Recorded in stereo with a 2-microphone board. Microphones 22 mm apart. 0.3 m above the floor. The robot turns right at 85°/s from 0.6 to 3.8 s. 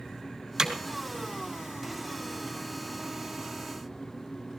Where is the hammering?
25° right (ahead or behind), 3 m; by 0.7 s 35° right (ahead or behind), 3 m.